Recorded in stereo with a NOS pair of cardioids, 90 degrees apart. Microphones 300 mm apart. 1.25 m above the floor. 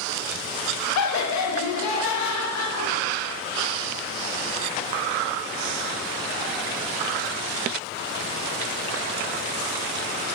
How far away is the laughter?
About 0.6 m.